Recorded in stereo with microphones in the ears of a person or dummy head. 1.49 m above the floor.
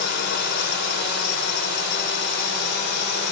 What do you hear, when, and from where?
0.0 s a drone: 60° left (ahead or behind)